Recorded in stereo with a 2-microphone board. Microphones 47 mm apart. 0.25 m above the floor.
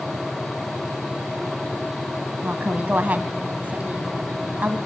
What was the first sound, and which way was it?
A woman speaking, 35° right (ahead or behind).